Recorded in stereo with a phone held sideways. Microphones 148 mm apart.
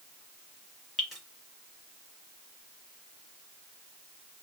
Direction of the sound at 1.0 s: Centre (ahead or behind).